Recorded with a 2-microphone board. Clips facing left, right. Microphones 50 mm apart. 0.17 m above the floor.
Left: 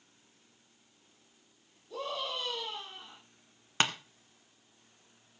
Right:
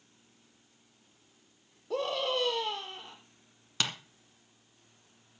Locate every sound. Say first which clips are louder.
1.9 s a scream: right 6 dB; 75° right (ahead or behind), 5.5 m
3.8 s tapping: left 4 dB; 35° left (ahead or behind), 1.5 m